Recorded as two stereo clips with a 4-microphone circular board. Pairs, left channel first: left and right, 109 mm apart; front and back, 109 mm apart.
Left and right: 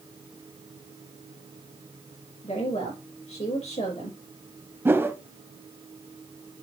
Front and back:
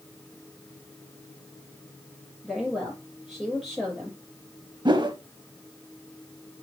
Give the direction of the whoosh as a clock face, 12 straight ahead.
5 o'clock.